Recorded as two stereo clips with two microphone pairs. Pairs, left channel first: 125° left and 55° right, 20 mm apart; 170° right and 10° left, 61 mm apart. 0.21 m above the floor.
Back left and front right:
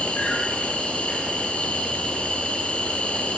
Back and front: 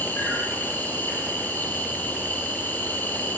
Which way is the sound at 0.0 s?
135° left.